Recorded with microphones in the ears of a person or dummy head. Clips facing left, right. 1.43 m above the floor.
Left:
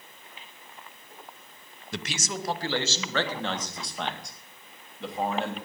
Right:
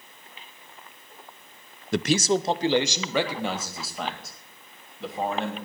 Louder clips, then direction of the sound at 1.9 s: Right 12 dB; 50° right (ahead or behind).